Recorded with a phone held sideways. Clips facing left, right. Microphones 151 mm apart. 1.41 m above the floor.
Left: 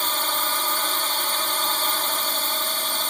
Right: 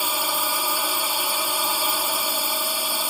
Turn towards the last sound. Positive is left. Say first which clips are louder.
# right 1 dB
turn(degrees=-10)  # may be behind; listen again after turning